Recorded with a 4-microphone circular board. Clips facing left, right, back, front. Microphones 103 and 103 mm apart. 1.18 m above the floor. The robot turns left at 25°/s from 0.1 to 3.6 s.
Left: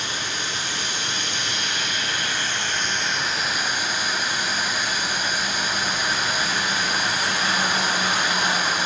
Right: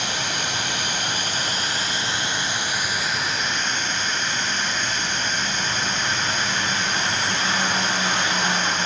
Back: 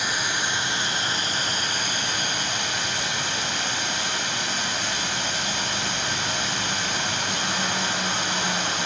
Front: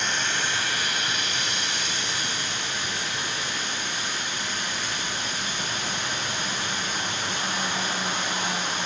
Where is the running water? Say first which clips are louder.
Right 3 dB, back 1 dB; 100° right, 3 m; by 8.9 s 175° left, 3 m.